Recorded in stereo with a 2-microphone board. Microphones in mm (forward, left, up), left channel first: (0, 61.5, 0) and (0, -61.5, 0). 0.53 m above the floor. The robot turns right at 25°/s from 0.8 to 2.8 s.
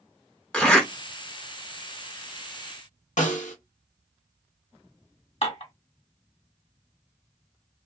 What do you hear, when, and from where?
0.5 s a zipper: 10° left (ahead or behind), 1.2 m
3.2 s a snare drum: 80° left, 0.9 m
5.4 s dishes clattering: 60° left (ahead or behind), 1.7 m